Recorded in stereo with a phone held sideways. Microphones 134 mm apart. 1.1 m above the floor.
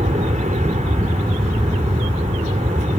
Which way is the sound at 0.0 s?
60° right (ahead or behind).